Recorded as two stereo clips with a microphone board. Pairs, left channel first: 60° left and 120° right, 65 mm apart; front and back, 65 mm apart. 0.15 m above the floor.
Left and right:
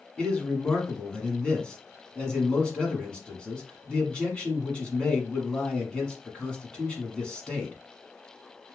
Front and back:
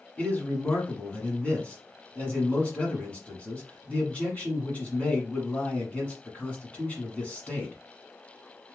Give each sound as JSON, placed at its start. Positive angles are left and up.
{"t": 0.2, "sound": "a man speaking", "azimuth_deg": 15, "distance_m": 1.3}